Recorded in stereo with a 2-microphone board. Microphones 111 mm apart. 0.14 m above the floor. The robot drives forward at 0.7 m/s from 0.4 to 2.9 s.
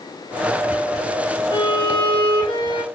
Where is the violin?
40° left (ahead or behind), 1.0 m; by 2.8 s 35° left (ahead or behind), 1.0 m.